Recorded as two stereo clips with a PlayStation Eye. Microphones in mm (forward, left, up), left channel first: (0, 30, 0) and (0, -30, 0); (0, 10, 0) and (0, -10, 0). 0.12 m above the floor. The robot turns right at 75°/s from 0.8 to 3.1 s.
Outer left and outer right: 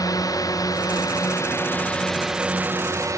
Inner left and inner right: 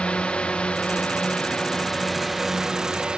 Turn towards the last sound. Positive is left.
turn(degrees=-60)  # may be behind; listen again after turning